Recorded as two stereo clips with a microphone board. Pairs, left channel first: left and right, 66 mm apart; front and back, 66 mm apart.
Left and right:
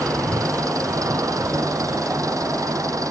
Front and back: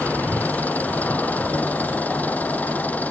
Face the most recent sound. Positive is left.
turn(degrees=-65)